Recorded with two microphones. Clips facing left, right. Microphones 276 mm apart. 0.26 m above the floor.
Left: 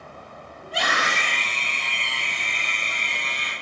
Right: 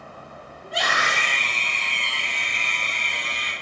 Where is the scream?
60° left (ahead or behind), 9.5 m; by 3.5 s 50° left (ahead or behind), 8.5 m.